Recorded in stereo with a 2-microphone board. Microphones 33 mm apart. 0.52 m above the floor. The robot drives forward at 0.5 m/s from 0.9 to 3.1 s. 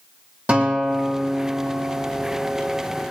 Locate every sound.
0.5 s a guitar: 50° right (ahead or behind), 5 m; by 2.8 s 60° right (ahead or behind), 4 m